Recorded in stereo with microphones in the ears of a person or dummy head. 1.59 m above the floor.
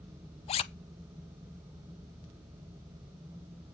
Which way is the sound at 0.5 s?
30° left (ahead or behind).